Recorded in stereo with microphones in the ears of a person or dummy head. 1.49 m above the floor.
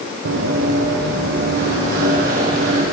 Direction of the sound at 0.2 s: 70° right (ahead or behind).